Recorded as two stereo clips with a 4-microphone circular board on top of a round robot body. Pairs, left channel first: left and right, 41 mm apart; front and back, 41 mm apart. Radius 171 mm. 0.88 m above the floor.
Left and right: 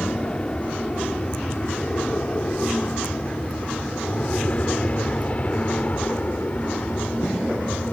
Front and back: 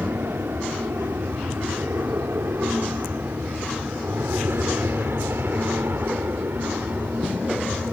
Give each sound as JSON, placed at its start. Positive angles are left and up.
{"t": 0.0, "sound": "an aircraft", "azimuth_deg": 160}